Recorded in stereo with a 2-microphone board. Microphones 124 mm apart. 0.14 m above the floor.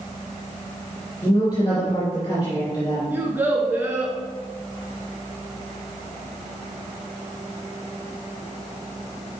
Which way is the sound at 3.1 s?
15° right (ahead or behind).